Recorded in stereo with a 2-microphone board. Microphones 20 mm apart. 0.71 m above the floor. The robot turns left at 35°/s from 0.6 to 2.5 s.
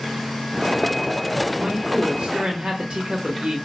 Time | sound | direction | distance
1.6 | a man speaking | 70° right | 0.7 m